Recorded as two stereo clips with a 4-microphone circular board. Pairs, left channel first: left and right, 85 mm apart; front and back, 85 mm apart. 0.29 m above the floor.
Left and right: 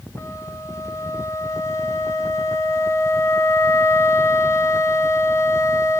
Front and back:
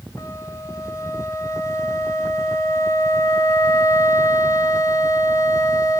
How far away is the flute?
About 1.9 m.